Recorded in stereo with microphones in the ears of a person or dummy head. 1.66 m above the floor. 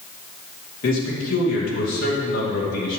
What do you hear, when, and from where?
0.8 s a man speaking: 60° left (ahead or behind), 2.5 m